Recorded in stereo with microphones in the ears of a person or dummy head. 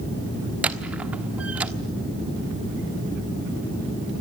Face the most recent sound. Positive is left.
turn(degrees=-10)  # may be behind; listen again after turning